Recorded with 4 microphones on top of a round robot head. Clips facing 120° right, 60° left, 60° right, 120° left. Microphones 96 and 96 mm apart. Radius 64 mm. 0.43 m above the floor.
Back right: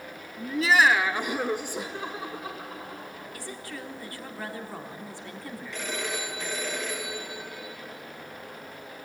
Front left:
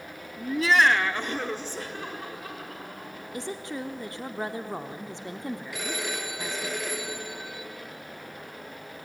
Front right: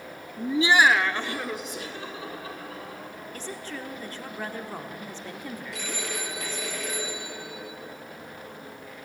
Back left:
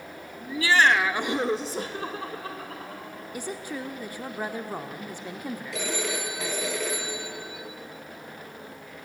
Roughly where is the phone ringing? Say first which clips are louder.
Even, back left 6 dB; behind left.